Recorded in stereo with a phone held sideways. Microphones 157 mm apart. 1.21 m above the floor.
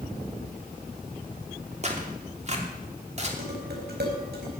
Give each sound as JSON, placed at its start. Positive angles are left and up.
{"t": 1.8, "sound": "tearing paper", "side_deg": -40, "distance_m": 2.5}
{"t": 3.4, "sound": "dishes clattering", "side_deg": -85, "distance_m": 4.5}